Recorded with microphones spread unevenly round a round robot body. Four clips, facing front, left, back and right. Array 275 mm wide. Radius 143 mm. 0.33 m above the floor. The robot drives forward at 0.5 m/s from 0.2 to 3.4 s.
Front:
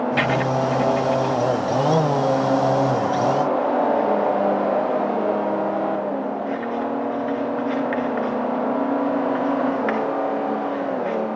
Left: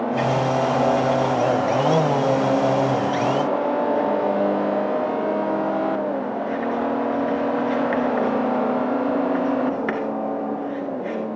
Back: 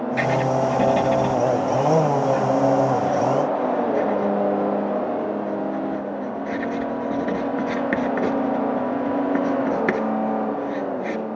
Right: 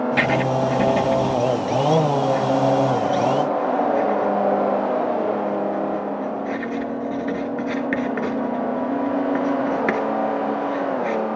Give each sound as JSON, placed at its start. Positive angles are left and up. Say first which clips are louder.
{"t": 0.2, "sound": "writing", "louder": "left 1 dB, back 3 dB", "azimuth_deg": -65, "distance_m": 0.5}